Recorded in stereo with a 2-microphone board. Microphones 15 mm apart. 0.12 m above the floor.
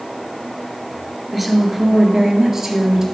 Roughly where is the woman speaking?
Centre.